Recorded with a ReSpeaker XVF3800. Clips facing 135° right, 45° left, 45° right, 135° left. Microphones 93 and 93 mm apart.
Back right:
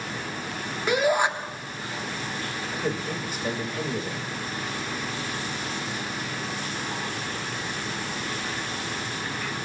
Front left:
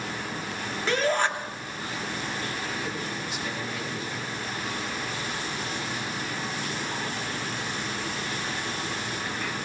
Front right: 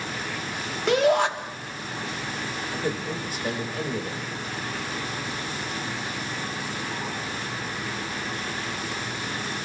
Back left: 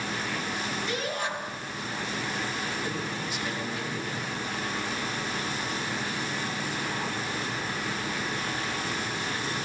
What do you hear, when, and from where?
0.9 s a shout: 60° right, 2.5 m
2.7 s a man speaking: 90° right, 5.5 m